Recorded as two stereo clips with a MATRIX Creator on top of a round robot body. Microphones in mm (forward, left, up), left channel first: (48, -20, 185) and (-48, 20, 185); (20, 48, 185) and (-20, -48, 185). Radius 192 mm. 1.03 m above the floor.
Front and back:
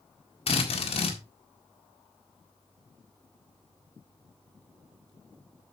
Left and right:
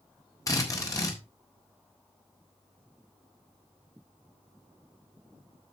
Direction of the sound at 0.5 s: 10° left.